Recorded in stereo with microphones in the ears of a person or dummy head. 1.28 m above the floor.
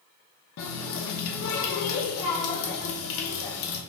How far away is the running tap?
About 0.7 m.